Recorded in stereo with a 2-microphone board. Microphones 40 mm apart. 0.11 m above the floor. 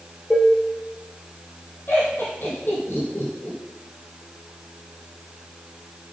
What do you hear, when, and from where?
0.3 s dishes clattering: centre (ahead or behind), 2 m
1.9 s laughter: 60° left (ahead or behind), 4 m